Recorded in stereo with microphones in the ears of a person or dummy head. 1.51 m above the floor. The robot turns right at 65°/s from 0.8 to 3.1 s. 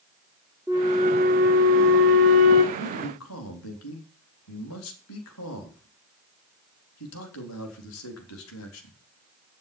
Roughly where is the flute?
Behind.